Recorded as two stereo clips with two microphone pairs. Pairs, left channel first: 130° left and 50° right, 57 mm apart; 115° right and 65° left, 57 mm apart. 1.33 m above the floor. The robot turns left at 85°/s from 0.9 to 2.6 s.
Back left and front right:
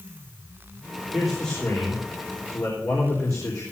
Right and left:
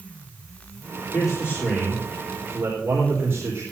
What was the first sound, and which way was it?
A man speaking, 125° right.